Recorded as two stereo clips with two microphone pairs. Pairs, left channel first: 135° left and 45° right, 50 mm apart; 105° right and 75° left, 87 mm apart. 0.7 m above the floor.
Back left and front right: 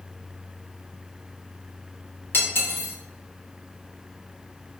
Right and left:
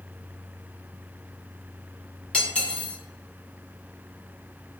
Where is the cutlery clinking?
Straight behind, 0.5 m.